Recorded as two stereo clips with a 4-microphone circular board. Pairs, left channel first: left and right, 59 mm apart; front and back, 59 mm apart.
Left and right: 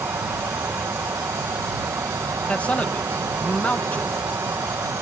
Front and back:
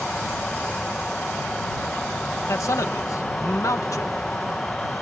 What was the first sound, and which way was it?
An insect, 75° right.